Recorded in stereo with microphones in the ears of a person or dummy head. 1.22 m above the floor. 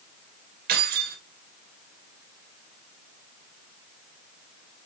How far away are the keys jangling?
About 2.5 m.